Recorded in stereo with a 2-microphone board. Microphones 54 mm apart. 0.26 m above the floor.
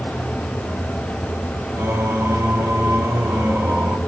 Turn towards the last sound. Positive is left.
turn(degrees=-55)  # may be behind; listen again after turning